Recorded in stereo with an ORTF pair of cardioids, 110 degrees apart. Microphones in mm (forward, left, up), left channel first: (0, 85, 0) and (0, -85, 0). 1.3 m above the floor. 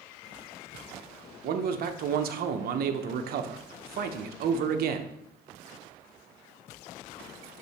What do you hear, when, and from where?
1.4 s a man speaking: 60° right, 0.8 m